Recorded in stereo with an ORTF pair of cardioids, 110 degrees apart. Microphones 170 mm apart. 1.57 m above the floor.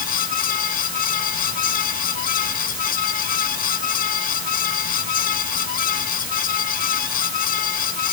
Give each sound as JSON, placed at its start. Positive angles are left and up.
{"t": 0.0, "sound": "a fan", "azimuth_deg": 55}